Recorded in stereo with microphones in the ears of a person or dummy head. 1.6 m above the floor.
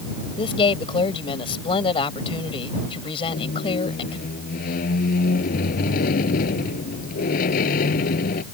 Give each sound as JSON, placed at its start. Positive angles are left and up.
{"t": 0.4, "sound": "a woman speaking", "side_deg": 25}
{"t": 3.3, "sound": "a squeak", "side_deg": 40}